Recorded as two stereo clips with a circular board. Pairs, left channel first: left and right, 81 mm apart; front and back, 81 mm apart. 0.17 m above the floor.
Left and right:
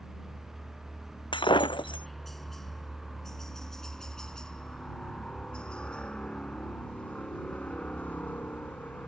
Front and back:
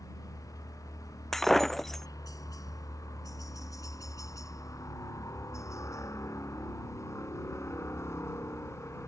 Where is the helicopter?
5° right; by 9.1 s 35° left.